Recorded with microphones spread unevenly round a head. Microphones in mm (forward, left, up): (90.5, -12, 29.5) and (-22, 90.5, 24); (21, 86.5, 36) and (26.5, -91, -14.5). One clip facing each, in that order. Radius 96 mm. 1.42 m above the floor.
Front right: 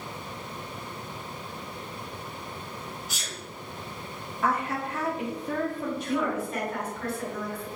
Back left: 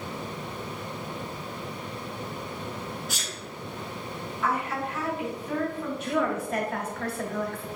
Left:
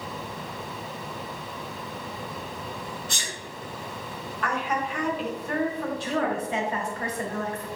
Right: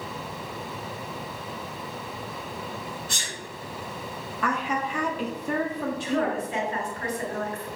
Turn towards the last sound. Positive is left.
turn(degrees=120)